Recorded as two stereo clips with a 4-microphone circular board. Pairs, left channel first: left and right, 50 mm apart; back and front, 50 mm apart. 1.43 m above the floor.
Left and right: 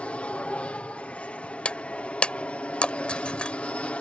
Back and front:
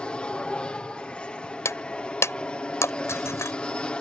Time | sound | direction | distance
0.0 | an aircraft | 130° left | ?
1.6 | breaking glass | 160° left | ?